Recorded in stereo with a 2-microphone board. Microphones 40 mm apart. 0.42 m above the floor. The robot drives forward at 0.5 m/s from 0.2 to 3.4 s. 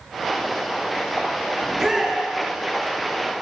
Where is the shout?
10° right (ahead or behind), 7 m.